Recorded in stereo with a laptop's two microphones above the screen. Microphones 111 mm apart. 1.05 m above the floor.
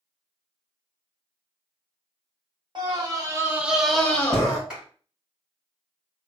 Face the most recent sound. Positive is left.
turn(degrees=-5)  # may be behind; listen again after turning